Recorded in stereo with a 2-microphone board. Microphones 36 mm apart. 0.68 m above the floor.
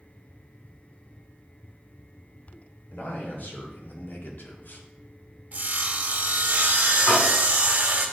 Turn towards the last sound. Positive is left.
turn(degrees=80)